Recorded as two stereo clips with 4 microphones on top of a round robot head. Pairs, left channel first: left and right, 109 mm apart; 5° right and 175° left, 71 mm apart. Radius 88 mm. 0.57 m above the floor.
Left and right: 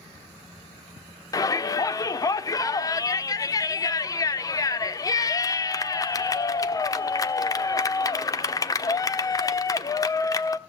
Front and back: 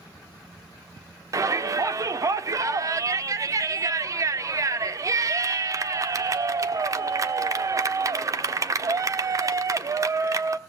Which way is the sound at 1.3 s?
145° left.